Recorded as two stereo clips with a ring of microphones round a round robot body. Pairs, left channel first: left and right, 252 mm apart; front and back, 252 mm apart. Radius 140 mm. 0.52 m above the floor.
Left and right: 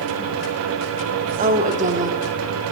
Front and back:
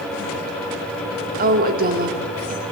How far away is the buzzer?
No buzzer in this recording.